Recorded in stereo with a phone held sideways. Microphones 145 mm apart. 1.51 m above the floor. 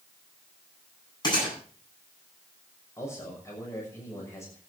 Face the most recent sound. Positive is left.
turn(degrees=20)  # may be behind; listen again after turning